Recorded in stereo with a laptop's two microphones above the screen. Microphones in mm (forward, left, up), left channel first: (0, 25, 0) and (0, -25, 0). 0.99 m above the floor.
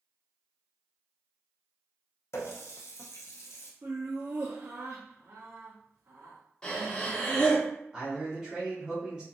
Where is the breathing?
20° left (ahead or behind), 0.7 m.